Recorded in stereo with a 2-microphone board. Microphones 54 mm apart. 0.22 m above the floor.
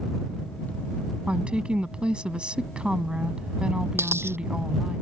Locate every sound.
1.3 s a woman speaking: 20° right (ahead or behind)
4.0 s a dropped coin: 45° right (ahead or behind)